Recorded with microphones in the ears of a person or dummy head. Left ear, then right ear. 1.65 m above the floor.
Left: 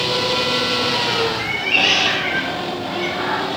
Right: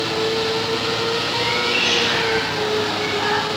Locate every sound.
1.4 s a cat meowing: 45° left (ahead or behind), 5 m; by 3.5 s 30° left (ahead or behind), 5.5 m